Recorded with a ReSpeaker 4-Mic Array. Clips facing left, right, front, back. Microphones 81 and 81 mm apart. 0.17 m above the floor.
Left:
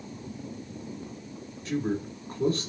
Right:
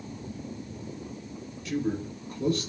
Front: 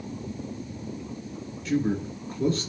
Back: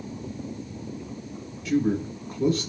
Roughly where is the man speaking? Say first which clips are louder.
Even, back 2 dB; left.